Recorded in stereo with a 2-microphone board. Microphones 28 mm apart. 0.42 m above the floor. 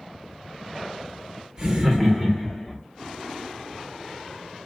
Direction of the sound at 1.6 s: 30° right (ahead or behind).